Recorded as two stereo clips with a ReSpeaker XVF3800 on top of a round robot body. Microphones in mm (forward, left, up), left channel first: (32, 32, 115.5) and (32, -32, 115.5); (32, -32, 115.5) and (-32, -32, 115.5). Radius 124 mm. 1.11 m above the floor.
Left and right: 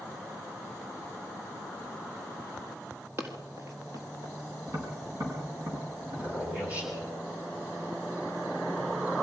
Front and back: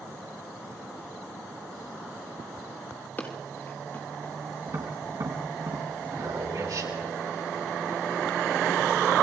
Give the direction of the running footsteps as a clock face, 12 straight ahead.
2 o'clock.